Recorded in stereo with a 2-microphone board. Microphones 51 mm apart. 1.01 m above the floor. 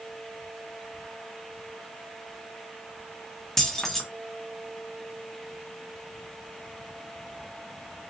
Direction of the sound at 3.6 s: 5° left (ahead or behind).